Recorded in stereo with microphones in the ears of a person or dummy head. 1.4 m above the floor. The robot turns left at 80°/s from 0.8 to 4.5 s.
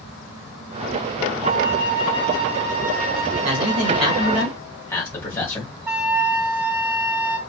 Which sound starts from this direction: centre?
A flute, at 5.9 s.